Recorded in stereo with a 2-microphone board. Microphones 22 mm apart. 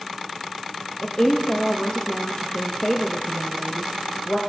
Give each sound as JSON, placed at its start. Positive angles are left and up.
{"t": 1.0, "sound": "a woman speaking", "side_deg": 40, "distance_m": 0.7}